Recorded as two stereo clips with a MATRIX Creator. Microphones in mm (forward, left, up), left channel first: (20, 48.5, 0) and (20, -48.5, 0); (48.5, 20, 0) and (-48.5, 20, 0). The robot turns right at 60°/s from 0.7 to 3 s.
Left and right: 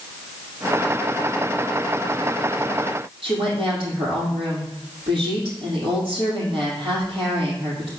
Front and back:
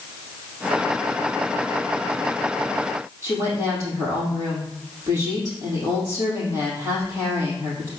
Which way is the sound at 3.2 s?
115° right.